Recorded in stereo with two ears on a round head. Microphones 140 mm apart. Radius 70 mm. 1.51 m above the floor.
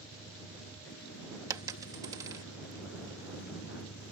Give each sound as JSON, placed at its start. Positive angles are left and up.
{"t": 0.0, "sound": "a vehicle", "side_deg": 90}
{"t": 1.5, "sound": "a dropped coin", "side_deg": -20}